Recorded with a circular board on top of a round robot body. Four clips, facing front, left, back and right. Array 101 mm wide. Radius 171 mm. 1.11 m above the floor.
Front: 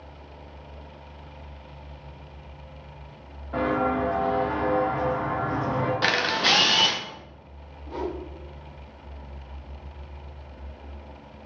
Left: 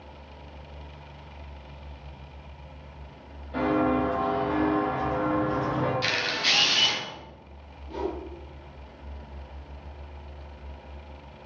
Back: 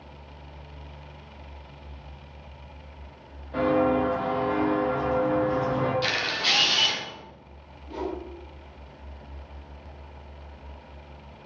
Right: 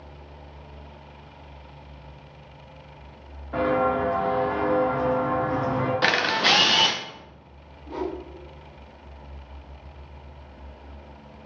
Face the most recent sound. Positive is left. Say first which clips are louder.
# right 1 dB, front 1 dB
turn(degrees=-60)